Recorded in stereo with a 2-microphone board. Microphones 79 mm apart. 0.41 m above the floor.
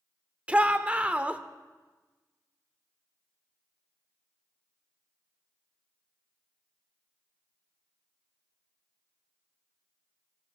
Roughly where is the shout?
Centre.